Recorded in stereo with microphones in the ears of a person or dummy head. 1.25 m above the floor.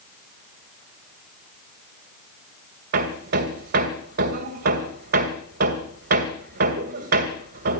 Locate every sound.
2.9 s hammering: 60° right (ahead or behind), 2 m